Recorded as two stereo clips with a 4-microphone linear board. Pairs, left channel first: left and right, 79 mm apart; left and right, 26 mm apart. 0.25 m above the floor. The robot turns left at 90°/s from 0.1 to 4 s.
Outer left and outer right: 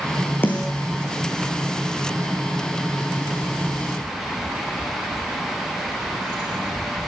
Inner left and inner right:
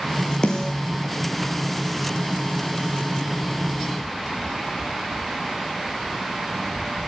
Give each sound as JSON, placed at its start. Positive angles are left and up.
{"t": 0.4, "sound": "a snare drum", "side_deg": 25, "distance_m": 4.5}